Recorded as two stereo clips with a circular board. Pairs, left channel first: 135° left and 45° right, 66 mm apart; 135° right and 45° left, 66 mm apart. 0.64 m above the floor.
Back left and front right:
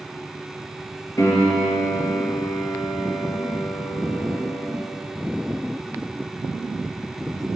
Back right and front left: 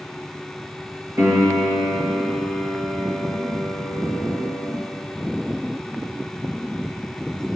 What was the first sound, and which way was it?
A piano, 95° left.